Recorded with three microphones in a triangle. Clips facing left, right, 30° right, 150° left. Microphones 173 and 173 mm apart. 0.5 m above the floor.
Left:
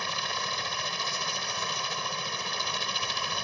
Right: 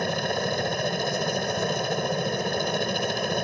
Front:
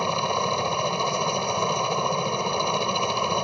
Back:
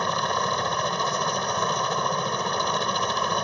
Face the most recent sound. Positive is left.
turn(degrees=-105)